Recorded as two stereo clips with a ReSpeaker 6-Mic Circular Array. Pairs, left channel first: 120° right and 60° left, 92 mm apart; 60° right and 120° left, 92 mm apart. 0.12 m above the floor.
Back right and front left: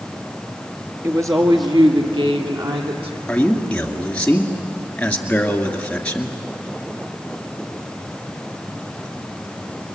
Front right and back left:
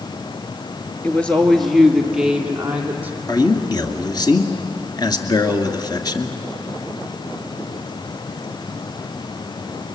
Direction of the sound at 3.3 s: 45° right.